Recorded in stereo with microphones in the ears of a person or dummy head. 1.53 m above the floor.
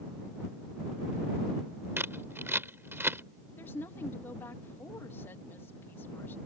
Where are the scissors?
10° right (ahead or behind).